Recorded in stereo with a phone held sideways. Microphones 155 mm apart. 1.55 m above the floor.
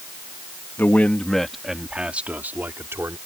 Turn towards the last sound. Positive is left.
turn(degrees=-15)  # may be behind; listen again after turning